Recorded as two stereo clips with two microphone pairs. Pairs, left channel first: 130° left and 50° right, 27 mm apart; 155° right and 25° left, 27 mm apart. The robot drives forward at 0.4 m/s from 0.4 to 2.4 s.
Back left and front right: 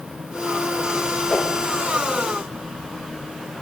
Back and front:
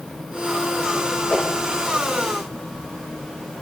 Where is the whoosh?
150° left, 2 m.